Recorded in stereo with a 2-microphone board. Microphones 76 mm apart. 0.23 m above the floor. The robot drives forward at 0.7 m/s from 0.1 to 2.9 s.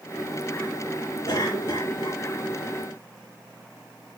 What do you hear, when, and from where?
1.3 s a cough: 60° left (ahead or behind), 4 m; by 2.2 s 65° left (ahead or behind), 4 m